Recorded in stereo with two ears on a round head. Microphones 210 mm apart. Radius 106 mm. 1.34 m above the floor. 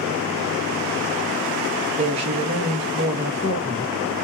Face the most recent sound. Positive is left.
turn(degrees=-25)  # may be behind; listen again after turning